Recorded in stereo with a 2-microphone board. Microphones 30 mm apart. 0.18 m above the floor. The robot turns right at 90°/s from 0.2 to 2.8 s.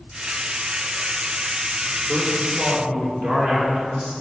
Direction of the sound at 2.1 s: 165° right.